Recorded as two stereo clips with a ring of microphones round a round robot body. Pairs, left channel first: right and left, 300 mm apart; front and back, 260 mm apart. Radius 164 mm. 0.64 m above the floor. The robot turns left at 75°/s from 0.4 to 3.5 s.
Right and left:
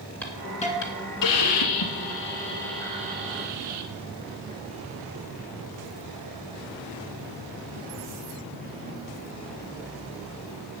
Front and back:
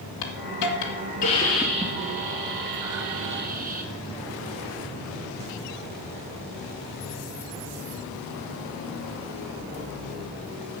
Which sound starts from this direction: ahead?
A hiss, at 0.2 s.